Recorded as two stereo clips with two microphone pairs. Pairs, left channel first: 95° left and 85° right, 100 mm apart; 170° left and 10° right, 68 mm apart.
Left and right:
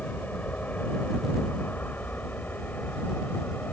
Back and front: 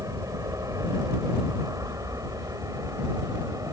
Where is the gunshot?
No gunshot in this recording.